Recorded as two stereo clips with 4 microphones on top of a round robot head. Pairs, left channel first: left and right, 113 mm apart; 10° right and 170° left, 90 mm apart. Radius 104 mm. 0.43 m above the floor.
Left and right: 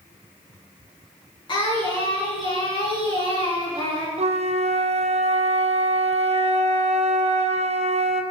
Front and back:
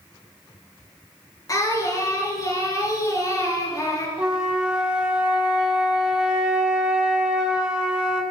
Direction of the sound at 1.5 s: 40° left.